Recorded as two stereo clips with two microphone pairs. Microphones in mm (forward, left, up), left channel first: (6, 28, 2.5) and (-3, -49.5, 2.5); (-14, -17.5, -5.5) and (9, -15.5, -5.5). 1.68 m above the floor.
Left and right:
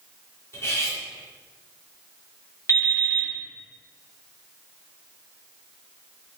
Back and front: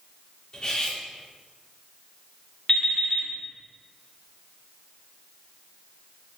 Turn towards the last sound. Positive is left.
turn(degrees=125)